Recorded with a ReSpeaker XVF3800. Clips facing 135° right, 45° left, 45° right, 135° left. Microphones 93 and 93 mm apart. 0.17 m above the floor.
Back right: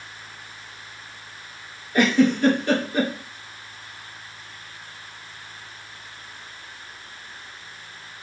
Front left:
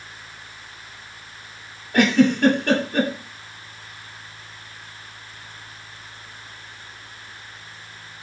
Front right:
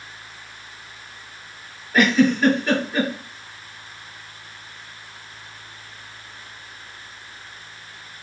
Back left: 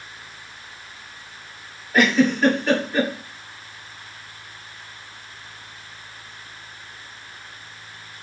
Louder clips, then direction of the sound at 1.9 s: Front left 2 dB, front right 1 dB; 45° left.